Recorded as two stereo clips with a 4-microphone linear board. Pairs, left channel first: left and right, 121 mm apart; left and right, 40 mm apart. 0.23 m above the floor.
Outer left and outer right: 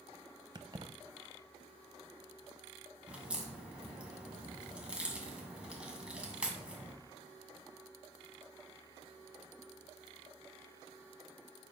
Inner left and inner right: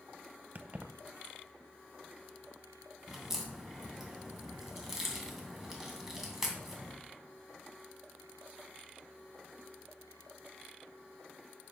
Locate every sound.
0.6 s keys jangling: 35° right (ahead or behind), 0.7 m
3.1 s a crack: 10° right (ahead or behind), 2 m